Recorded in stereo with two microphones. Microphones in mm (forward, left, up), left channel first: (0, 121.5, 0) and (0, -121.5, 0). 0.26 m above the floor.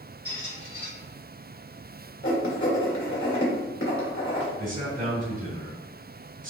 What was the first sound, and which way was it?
A squeak, 60° right (ahead or behind).